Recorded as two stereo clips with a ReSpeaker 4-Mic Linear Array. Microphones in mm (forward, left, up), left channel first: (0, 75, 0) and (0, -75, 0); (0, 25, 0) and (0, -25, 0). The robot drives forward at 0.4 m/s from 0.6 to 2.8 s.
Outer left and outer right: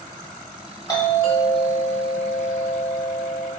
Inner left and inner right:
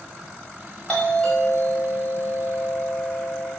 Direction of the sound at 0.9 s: 25° left (ahead or behind).